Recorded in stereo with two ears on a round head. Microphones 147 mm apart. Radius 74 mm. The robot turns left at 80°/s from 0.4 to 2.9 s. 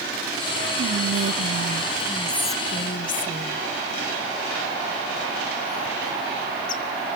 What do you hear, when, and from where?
0.8 s whispering: 60° right (ahead or behind), 0.6 m; by 6.8 s 50° left (ahead or behind), 0.6 m